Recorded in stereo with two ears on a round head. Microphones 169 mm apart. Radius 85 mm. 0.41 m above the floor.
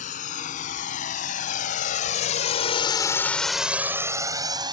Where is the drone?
45° left (ahead or behind); by 4.8 s 25° right (ahead or behind).